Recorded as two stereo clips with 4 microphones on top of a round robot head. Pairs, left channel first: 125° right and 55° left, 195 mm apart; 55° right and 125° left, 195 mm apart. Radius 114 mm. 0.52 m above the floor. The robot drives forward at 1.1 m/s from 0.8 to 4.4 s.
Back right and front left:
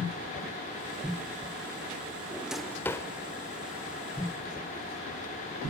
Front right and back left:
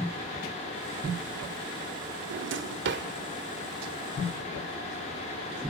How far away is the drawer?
About 0.7 m.